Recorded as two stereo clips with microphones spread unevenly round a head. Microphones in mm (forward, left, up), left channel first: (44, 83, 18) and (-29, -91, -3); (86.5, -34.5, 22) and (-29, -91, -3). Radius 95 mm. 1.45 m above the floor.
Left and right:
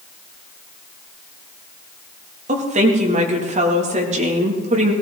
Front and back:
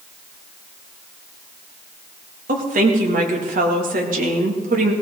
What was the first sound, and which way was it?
A woman speaking, 165° right.